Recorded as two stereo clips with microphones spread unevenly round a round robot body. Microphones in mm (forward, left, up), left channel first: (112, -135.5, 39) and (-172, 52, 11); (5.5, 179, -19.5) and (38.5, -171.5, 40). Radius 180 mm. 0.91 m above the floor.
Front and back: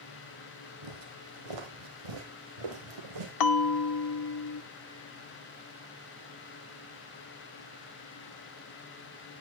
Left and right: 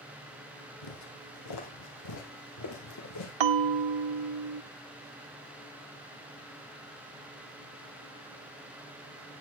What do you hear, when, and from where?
0.8 s footsteps: 130° left, 2.5 m; by 3.3 s 145° left, 4 m
3.4 s a bell: 65° right, 1.0 m